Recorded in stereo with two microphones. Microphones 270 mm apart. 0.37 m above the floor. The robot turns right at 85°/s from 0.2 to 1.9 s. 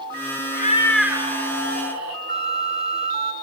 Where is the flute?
35° right (ahead or behind), 0.9 m.